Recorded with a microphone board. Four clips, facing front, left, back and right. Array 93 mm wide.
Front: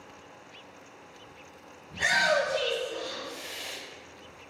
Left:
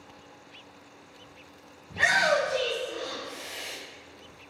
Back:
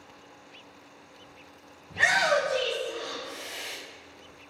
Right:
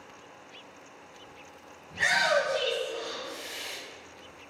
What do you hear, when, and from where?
1.9 s a shout: 135° left, 3 m; by 3.8 s 150° left, 3.5 m